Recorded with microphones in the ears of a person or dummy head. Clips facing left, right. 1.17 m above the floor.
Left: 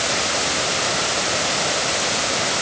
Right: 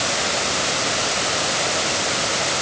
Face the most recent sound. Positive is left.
No sound to turn to.